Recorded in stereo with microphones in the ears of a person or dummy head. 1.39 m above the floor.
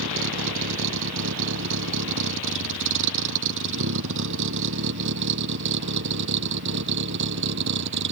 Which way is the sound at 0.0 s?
75° right (ahead or behind).